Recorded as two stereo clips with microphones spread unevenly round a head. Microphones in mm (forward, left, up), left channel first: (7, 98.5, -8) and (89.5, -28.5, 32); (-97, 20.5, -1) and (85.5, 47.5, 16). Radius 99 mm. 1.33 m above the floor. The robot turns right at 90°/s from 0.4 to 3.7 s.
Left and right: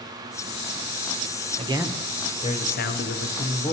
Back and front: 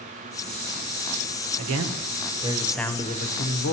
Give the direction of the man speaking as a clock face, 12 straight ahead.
12 o'clock.